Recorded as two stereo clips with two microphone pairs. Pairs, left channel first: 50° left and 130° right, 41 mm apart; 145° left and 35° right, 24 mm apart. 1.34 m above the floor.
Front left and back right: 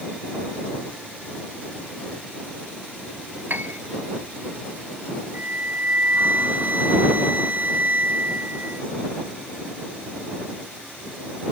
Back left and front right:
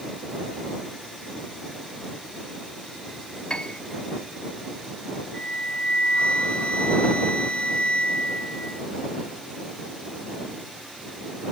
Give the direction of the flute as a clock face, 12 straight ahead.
6 o'clock.